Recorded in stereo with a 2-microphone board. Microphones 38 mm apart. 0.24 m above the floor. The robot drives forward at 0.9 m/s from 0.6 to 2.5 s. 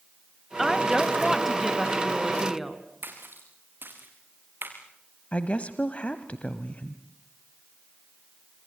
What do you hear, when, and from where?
0.6 s a woman speaking: 10° right (ahead or behind), 1.3 m; by 2.8 s 5° right (ahead or behind), 2.5 m
3.0 s a splash: 65° right (ahead or behind), 3.5 m
5.3 s a woman speaking: 35° left (ahead or behind), 1.1 m